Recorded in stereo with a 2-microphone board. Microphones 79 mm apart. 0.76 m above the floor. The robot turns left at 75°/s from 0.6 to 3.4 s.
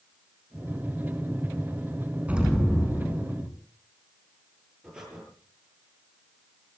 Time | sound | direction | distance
2.3 | an explosion | 160° right | 3.5 m
4.8 | breathing | 10° right (ahead or behind) | 8 m